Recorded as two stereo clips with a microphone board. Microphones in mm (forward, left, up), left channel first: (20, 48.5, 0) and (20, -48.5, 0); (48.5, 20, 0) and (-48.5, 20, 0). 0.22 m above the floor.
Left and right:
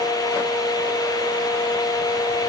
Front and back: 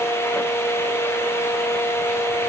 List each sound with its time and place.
Only background noise.